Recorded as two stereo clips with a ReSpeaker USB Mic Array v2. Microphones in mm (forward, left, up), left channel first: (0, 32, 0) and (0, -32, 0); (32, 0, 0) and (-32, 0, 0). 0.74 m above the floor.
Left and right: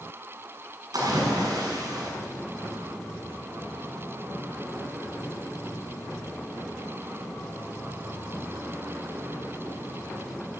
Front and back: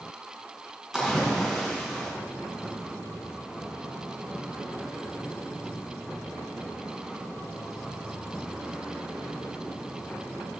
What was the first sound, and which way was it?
A splash, 95° right.